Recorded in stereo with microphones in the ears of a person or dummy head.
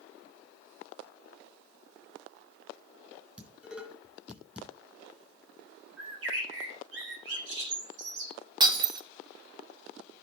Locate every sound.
3.4 s dishes clattering: centre (ahead or behind), 8.5 m
6.0 s a bird: 80° right, 4.5 m
8.6 s breaking glass: 20° right (ahead or behind), 2 m